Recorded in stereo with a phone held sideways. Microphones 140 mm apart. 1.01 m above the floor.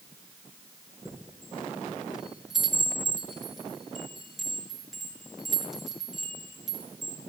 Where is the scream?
I don't hear a scream.